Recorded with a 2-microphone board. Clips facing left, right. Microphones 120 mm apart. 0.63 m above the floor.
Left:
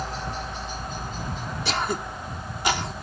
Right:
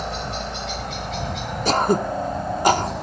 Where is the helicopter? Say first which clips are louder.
Right 3 dB; 65° right (ahead or behind); by 3.0 s 70° right (ahead or behind).